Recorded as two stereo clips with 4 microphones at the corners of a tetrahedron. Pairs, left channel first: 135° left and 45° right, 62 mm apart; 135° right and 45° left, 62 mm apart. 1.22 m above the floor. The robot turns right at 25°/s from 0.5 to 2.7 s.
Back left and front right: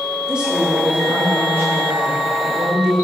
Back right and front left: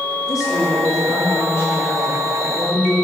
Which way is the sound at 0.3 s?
120° right.